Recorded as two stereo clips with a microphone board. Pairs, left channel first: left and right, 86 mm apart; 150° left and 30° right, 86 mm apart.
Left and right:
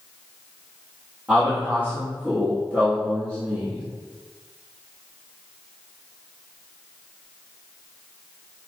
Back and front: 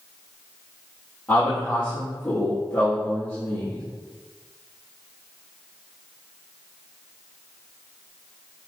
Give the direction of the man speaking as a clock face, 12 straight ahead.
5 o'clock.